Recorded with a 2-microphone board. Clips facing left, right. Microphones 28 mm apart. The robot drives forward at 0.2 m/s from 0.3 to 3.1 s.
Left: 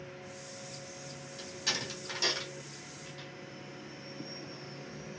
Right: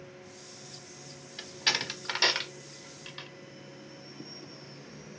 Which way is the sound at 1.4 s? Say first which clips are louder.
Right 6 dB; 50° right (ahead or behind).